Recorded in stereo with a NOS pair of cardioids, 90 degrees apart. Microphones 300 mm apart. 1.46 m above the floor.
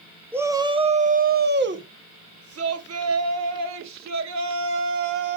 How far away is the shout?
About 1.2 m.